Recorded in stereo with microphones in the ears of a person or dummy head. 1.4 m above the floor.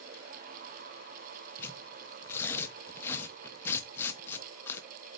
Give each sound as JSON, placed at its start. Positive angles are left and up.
{"t": 1.6, "sound": "tearing paper", "side_deg": 10, "distance_m": 0.8}